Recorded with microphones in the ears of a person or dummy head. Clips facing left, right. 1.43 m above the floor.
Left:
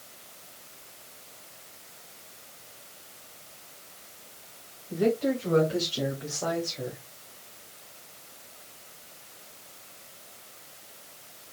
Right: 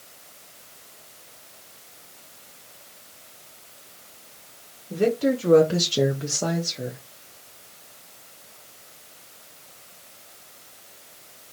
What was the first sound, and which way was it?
A woman speaking, 40° right (ahead or behind).